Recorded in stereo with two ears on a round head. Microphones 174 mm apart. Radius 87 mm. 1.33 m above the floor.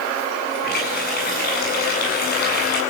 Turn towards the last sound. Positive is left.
turn(degrees=50)  # may be behind; listen again after turning